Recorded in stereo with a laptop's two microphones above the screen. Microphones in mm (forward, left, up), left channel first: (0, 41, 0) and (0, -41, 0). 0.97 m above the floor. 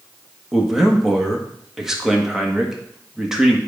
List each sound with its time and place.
0.5 s a man speaking: 5° right (ahead or behind), 1.6 m